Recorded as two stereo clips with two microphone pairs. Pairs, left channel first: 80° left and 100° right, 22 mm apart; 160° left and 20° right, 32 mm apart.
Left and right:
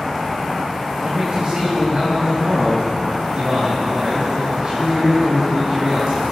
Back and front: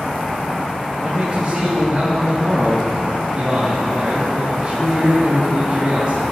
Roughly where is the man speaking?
Right.